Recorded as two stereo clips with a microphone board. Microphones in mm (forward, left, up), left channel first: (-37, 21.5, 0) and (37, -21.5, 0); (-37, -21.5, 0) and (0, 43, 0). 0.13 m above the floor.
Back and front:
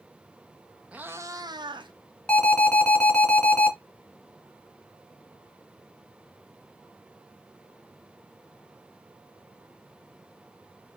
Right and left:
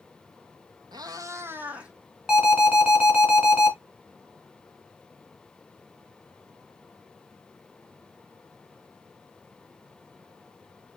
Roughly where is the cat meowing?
Ahead left.